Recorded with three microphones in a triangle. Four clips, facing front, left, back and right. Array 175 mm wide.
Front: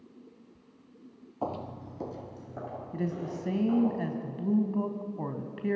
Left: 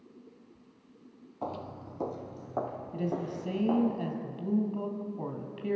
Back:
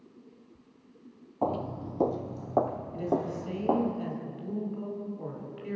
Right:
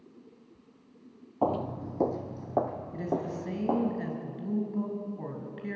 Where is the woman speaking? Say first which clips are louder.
Right 1 dB, back 4 dB; 15° left, 2.5 m.